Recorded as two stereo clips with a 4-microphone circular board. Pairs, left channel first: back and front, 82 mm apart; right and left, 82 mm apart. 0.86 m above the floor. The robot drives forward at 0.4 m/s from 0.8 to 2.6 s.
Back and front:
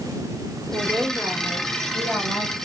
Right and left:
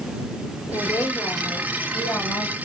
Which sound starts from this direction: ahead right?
A woman speaking, at 0.7 s.